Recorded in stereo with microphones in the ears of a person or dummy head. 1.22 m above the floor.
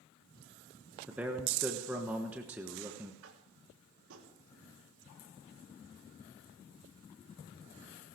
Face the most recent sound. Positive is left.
turn(degrees=-75)  # may be behind; listen again after turning